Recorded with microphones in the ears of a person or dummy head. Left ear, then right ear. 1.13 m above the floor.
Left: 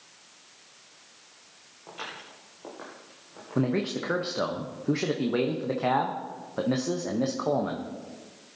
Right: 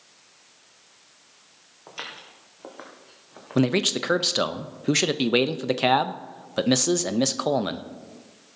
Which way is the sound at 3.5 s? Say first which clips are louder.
Right 6 dB; 70° right (ahead or behind).